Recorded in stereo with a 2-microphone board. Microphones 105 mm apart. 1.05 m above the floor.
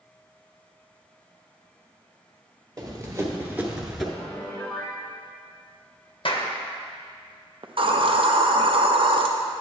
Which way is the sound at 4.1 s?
15° left (ahead or behind).